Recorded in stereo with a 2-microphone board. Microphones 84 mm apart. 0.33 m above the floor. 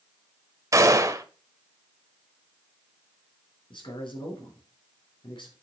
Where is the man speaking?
70° left (ahead or behind), 4 m.